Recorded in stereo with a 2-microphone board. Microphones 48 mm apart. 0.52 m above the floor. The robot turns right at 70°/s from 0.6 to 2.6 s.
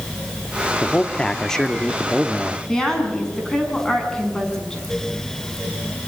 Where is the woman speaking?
15° left (ahead or behind), 6 m.